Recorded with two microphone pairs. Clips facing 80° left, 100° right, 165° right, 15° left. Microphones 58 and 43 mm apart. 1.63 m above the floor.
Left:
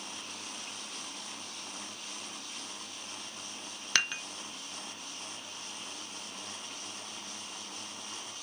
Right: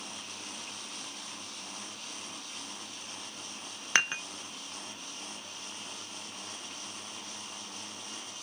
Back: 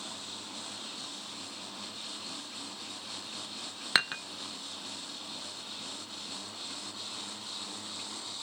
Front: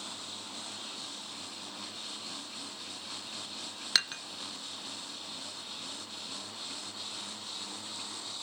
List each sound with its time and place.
4.0 s dishes clattering: 135° right, 0.7 m